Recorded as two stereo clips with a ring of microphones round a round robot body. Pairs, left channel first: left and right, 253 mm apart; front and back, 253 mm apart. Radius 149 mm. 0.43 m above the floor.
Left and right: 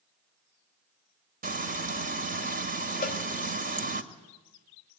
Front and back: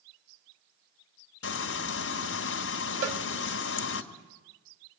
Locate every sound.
1.4 s frying: 35° right, 1.8 m
3.0 s a cowbell: 150° left, 1.3 m